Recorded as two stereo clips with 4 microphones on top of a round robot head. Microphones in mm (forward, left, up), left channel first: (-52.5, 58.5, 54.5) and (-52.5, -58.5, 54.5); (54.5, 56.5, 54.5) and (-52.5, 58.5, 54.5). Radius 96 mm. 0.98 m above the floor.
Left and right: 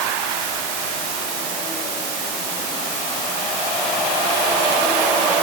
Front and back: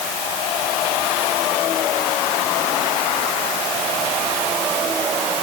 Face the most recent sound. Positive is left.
No sound to turn to.